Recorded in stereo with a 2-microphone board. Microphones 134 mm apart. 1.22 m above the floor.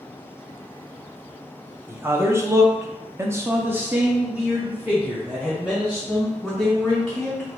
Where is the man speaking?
15° right (ahead or behind), 0.9 m; by 7.5 s centre (ahead or behind), 2.5 m.